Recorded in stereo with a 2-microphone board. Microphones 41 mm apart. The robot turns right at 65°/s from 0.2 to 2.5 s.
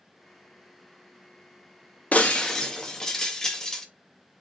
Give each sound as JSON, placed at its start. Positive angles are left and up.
{"t": 2.1, "sound": "breaking glass", "side_deg": 35, "distance_m": 0.8}